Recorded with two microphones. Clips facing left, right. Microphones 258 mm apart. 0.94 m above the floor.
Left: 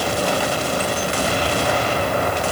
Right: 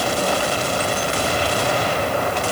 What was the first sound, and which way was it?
Only background noise.